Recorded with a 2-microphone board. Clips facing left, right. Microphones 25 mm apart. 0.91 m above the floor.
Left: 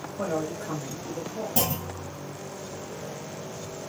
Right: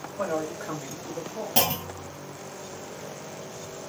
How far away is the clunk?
About 0.8 m.